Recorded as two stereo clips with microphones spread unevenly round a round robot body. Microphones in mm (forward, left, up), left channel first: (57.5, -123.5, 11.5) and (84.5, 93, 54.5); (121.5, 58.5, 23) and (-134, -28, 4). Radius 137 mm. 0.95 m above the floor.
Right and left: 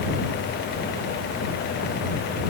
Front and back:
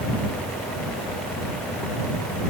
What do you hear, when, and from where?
Only background noise.